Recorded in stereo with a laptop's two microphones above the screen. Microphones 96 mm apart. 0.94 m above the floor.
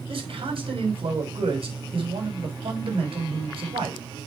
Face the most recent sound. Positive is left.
turn(degrees=-70)  # may be behind; listen again after turning